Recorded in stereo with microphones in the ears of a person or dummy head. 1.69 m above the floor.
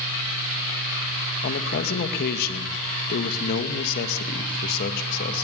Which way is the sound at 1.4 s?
60° left (ahead or behind).